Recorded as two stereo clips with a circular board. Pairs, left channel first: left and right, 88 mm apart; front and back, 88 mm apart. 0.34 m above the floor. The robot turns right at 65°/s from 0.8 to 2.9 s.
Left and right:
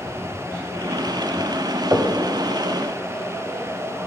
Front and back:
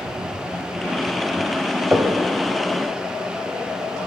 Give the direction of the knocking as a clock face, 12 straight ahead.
4 o'clock.